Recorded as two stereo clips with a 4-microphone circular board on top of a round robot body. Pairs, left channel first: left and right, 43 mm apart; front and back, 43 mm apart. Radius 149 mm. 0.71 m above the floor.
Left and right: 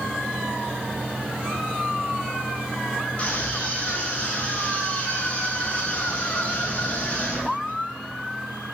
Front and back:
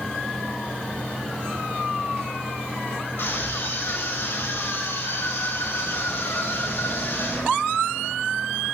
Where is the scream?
30° left, 10 m.